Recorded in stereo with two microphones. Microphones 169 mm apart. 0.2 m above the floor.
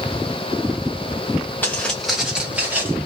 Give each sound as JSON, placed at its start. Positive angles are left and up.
{"t": 1.6, "sound": "footsteps", "side_deg": 10, "distance_m": 1.1}